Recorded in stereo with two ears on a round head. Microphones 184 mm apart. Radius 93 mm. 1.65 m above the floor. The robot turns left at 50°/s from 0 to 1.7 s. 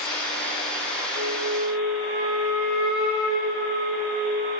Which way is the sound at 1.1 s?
60° right (ahead or behind).